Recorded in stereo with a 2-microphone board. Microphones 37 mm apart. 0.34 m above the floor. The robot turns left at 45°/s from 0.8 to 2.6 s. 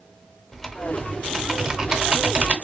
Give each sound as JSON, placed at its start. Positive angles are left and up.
{"t": 0.5, "sound": "typing on a keyboard", "azimuth_deg": 10, "distance_m": 0.8}